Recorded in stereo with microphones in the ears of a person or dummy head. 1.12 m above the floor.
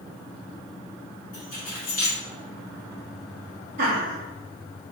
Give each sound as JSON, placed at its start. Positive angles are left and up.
{"t": 1.3, "sound": "keys jangling", "side_deg": 35, "distance_m": 1.7}
{"t": 3.8, "sound": "laughter", "side_deg": -40, "distance_m": 2.0}